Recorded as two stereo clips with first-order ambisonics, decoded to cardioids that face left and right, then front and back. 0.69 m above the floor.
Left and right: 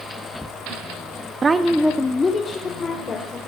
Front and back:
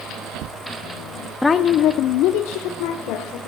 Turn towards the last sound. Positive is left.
turn(degrees=20)